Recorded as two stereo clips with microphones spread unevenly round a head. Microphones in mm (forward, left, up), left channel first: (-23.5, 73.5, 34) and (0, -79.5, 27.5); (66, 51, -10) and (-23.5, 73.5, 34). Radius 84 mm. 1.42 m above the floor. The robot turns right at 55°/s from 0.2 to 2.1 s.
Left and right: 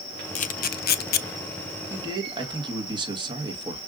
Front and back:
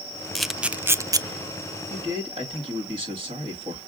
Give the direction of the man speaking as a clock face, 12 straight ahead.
5 o'clock.